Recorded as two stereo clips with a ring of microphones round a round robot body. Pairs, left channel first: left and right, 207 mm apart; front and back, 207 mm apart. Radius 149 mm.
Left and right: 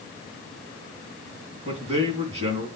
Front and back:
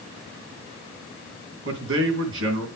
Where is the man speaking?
155° right, 2.5 m.